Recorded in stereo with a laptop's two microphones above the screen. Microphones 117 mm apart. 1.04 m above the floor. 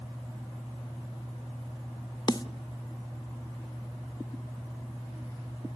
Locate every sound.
2.3 s a snare drum: 35° left (ahead or behind), 0.8 m